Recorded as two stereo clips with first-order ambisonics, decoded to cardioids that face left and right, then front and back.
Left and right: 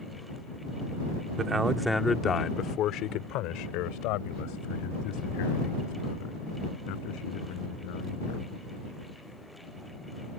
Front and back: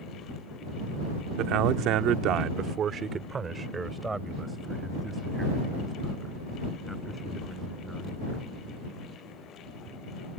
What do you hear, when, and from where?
1.4 s a man speaking: 155° right; by 8.5 s 90° left